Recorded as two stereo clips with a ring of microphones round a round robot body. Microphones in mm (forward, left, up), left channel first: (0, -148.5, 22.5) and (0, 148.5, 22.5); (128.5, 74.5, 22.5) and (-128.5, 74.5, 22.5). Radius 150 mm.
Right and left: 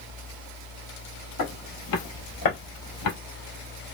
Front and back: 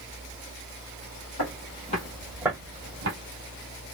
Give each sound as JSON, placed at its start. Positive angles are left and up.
{"t": 1.4, "sound": "footsteps", "azimuth_deg": -45, "distance_m": 1.5}